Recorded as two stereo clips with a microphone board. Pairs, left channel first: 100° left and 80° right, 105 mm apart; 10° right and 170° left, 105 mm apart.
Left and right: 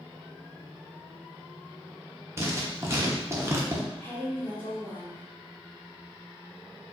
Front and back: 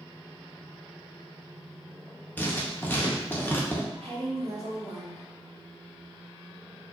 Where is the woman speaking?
170° left, 1.5 m.